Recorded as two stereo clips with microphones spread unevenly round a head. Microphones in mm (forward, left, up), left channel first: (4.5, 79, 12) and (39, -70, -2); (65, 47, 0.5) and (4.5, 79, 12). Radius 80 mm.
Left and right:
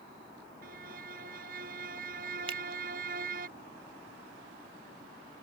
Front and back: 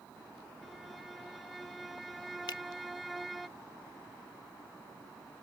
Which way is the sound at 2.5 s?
20° right.